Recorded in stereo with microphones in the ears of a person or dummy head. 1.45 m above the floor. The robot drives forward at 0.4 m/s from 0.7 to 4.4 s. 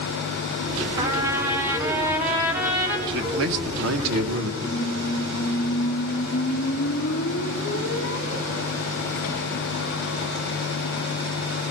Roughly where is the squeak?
Left.